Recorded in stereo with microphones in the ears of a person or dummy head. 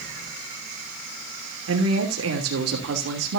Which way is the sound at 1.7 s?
80° right.